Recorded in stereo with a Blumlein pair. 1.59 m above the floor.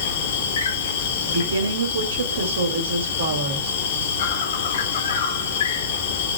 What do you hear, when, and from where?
0.0 s an insect: 60° left, 1.4 m
1.2 s a woman speaking: 65° right, 3 m